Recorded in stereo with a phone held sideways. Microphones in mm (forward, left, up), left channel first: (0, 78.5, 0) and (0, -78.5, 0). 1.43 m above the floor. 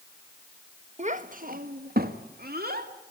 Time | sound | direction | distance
1.0 | a child speaking | 45° right (ahead or behind) | 1.1 m